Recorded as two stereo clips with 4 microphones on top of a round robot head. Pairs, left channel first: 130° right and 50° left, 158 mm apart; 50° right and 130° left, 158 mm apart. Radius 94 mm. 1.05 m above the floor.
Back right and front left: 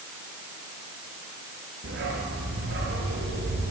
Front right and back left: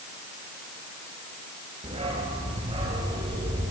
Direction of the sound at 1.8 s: 75° left.